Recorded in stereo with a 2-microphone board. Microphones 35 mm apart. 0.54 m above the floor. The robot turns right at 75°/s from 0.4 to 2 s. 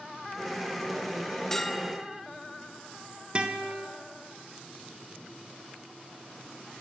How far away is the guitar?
About 1.9 m.